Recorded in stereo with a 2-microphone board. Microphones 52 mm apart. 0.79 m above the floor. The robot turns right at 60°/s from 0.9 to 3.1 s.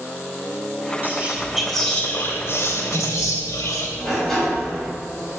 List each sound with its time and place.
1.0 s whispering: 45° right, 2.5 m; by 3.9 s 80° left, 2.5 m
4.0 s a sliding door: 5° left (ahead or behind), 4 m